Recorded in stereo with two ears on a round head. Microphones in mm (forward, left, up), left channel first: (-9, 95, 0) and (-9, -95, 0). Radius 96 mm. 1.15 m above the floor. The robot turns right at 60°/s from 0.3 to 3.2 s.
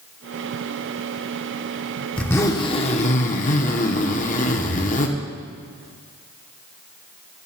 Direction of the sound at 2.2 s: 10° left.